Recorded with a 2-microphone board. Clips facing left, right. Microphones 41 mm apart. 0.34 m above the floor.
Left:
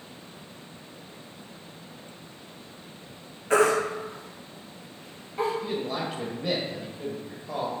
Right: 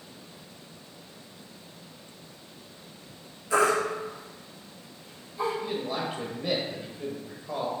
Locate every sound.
3.5 s a baby crying: 50° left (ahead or behind), 2.5 m
5.6 s a man speaking: 5° right (ahead or behind), 1.2 m